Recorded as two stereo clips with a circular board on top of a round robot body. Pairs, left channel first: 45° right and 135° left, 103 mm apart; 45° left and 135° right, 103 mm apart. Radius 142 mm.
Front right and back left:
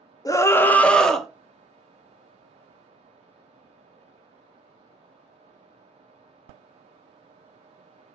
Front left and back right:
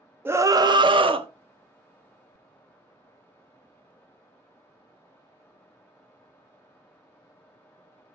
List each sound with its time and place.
0.2 s a scream: 75° right, 0.8 m; by 1.3 s 135° right, 1.3 m